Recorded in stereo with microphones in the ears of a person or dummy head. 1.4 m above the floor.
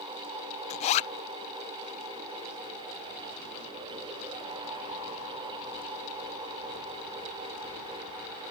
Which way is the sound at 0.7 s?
35° left (ahead or behind).